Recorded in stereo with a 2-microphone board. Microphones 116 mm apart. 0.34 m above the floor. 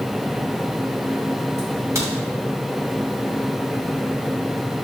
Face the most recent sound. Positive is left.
turn(degrees=-25)  # may be behind; listen again after turning